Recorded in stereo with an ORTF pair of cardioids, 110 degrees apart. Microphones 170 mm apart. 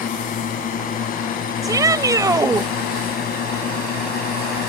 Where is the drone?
50° left; by 4.7 s 65° left.